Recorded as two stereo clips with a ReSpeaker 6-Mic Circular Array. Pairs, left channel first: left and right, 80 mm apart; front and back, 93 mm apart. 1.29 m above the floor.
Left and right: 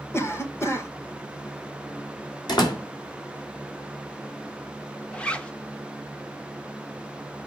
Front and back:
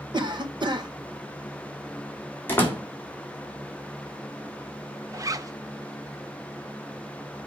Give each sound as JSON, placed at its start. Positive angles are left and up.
{"t": 0.1, "sound": "a cough", "azimuth_deg": 145, "distance_m": 1.7}
{"t": 2.5, "sound": "a door slam", "azimuth_deg": 65, "distance_m": 3.0}
{"t": 5.1, "sound": "a zipper", "azimuth_deg": 160, "distance_m": 0.8}